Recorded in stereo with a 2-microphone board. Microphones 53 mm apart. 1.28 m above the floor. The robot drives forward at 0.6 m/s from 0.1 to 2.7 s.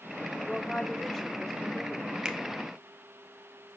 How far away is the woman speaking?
About 0.8 m.